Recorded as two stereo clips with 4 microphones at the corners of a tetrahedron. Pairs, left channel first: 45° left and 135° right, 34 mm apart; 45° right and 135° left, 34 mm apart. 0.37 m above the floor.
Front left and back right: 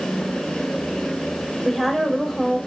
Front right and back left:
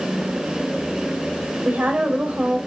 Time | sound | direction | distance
1.6 | a woman speaking | 120° left | 1.4 m